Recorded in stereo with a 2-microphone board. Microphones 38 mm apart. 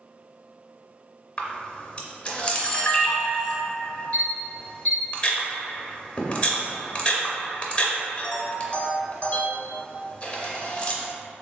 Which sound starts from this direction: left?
A camera shutter, at 1.4 s.